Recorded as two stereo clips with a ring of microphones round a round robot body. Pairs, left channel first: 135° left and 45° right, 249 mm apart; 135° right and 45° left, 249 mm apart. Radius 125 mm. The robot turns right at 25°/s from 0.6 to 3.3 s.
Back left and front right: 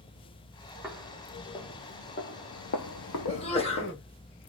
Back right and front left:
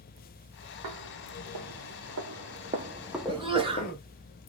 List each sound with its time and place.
0.8 s footsteps: 40° left, 1.6 m; by 3.9 s 175° left, 0.5 m
3.3 s a sneeze: 90° left, 1.4 m; by 4.0 s 95° left, 1.4 m